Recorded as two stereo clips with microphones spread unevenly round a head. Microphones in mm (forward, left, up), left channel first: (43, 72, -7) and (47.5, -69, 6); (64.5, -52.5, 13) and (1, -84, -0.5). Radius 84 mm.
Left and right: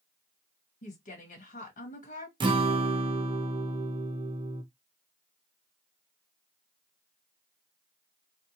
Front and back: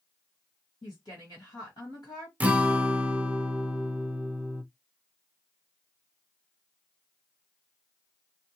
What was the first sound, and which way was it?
A woman speaking, 65° left.